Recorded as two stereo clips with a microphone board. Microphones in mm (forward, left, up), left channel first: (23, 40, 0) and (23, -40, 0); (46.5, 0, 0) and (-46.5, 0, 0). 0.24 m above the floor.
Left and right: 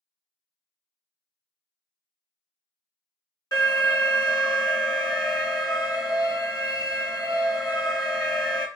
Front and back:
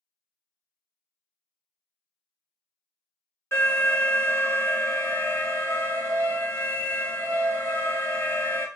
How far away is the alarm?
About 2.5 m.